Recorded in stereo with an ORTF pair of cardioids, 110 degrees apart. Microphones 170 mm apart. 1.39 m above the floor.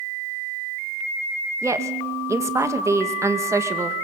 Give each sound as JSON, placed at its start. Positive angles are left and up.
{"t": 1.6, "sound": "a woman speaking", "azimuth_deg": -15, "distance_m": 2.0}